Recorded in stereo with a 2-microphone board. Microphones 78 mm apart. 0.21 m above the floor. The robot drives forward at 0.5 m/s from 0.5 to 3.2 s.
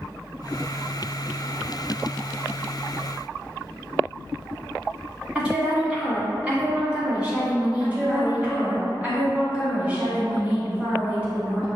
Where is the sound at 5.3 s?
15° right (ahead or behind), 1.7 m.